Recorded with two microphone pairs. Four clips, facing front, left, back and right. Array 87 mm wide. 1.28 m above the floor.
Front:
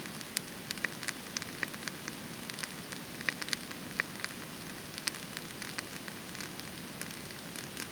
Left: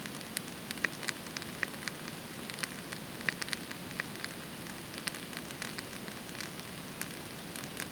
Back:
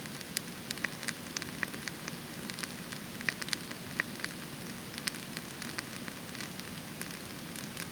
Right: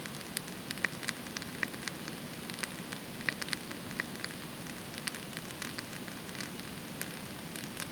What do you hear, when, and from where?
Only background noise.